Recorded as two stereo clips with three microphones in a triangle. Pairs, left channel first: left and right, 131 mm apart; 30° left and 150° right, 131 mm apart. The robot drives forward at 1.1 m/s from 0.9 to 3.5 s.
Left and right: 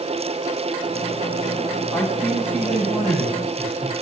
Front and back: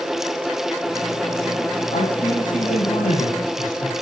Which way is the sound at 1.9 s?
5° left.